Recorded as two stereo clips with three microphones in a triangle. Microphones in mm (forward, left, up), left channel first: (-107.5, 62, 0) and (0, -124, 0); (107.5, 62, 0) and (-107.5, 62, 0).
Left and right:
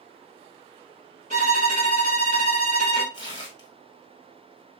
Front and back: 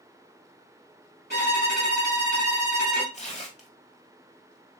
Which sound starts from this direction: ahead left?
Tearing paper, at 3.1 s.